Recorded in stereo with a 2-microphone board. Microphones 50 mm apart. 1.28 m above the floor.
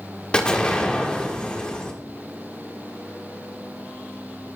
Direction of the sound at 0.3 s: 20° left (ahead or behind).